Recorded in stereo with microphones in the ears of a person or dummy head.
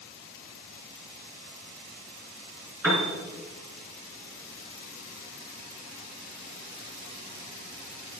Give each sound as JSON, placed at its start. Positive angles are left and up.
{"t": 2.8, "sound": "a piano", "side_deg": -10, "distance_m": 3.5}